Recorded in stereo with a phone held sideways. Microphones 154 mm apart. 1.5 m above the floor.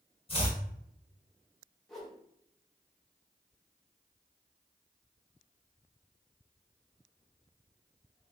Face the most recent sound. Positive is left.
turn(degrees=0)  # may be behind; listen again after turning